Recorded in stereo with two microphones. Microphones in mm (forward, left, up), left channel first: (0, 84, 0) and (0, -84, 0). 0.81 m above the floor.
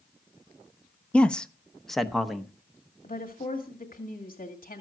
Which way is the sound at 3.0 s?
55° left (ahead or behind).